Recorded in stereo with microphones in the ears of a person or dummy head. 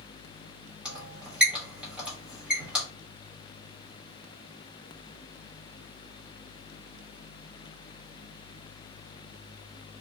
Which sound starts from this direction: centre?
A squeak, at 0.8 s.